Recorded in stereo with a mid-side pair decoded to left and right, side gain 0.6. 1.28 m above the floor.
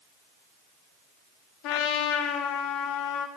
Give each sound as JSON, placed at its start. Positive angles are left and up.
{"t": 1.6, "sound": "a trumpet", "azimuth_deg": 70, "distance_m": 1.3}